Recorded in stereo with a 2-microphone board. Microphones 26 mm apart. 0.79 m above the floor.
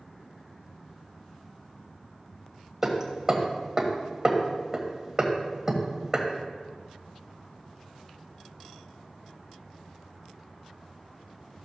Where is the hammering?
15° right (ahead or behind), 1.3 m.